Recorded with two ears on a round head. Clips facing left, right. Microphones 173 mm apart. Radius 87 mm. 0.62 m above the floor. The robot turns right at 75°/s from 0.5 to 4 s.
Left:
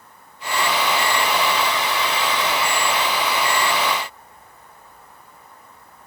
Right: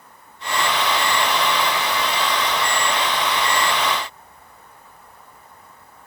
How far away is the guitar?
No guitar in this recording.